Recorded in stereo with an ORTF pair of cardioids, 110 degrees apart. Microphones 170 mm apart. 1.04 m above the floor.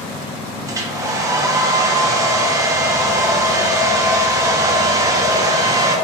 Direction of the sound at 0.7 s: 20° right.